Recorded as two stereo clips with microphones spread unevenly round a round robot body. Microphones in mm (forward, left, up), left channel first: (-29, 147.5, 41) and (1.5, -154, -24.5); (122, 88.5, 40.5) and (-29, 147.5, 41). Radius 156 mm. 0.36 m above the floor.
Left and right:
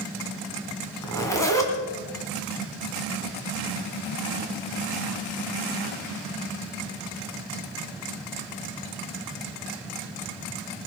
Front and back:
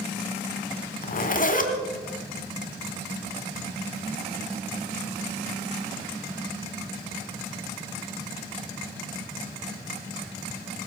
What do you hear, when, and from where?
1.0 s a zipper: 10° left, 2 m